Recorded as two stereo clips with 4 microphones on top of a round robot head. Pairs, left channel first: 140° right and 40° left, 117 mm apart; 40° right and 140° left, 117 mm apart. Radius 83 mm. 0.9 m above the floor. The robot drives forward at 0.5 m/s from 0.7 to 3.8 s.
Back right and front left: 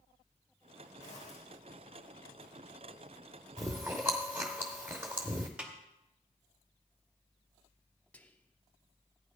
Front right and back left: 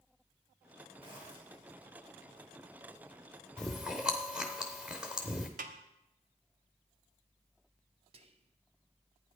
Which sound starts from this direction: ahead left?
Chewing, at 3.6 s.